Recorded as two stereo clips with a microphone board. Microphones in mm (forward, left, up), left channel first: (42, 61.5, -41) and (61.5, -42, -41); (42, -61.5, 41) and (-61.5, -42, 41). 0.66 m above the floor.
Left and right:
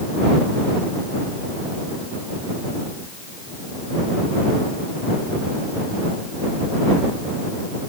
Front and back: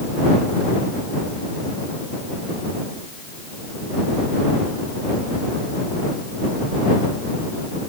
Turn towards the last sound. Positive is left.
No sound to turn to.